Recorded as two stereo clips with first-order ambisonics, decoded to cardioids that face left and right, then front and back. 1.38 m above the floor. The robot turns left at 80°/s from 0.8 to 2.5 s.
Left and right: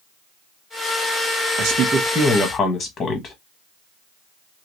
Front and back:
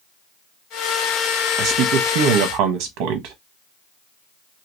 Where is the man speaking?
130° right, 0.9 m; by 3.4 s 160° left, 0.9 m.